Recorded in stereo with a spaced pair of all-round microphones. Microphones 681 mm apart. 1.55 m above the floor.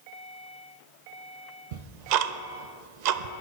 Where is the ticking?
80° right, 0.5 m.